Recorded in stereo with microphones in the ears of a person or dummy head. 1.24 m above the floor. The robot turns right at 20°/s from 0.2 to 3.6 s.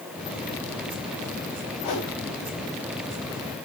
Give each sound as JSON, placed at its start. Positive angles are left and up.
{"t": 1.8, "sound": "a whoosh", "side_deg": 40, "distance_m": 3.5}